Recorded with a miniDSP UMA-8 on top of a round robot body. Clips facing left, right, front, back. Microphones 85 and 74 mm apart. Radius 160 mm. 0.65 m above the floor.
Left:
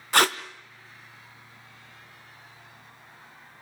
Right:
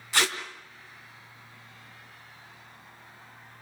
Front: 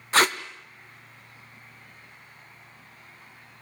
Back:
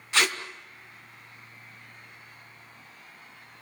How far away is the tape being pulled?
About 0.6 m.